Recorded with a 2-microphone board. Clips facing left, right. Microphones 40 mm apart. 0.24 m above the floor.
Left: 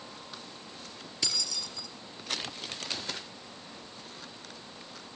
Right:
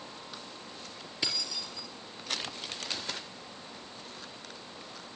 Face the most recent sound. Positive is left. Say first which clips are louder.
# even
turn(degrees=-20)  # may be behind; listen again after turning